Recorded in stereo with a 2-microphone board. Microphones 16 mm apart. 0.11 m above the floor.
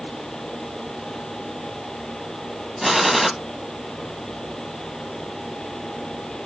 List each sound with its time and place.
2.8 s a gunshot: 10° right (ahead or behind), 2 m